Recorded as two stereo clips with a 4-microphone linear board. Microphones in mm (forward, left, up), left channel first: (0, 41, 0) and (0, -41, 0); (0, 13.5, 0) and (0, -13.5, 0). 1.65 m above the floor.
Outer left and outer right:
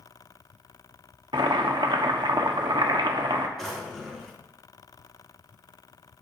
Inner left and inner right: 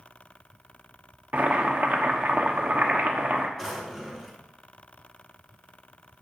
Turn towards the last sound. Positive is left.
turn(degrees=0)  # may be behind; listen again after turning